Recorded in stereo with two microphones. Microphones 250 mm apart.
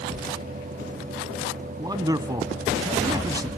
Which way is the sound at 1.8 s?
15° right (ahead or behind).